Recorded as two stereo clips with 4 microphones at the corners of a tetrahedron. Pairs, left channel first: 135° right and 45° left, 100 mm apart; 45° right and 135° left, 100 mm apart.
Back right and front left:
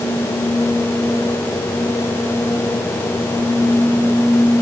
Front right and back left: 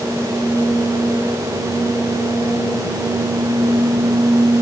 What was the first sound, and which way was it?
Only background noise.